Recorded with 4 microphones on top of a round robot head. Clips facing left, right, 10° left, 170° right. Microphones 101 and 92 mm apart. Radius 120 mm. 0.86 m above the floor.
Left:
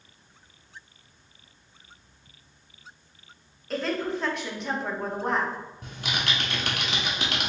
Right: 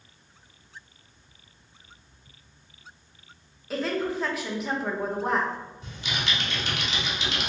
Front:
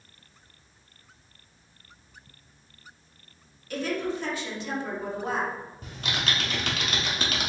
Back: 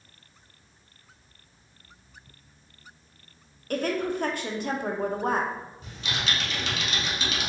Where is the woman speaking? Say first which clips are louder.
Right 1 dB, back 2 dB; 175° right, 0.8 m.